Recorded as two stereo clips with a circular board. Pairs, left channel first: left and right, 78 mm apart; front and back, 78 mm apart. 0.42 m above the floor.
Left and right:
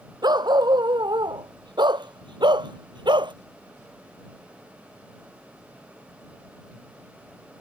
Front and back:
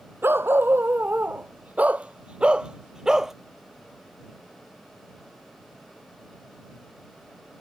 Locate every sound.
0.2 s a dog barking: 115° right; by 3.3 s 95° right